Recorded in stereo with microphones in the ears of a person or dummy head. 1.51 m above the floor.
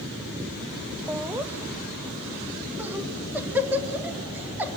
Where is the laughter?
5° right (ahead or behind), 1.0 m.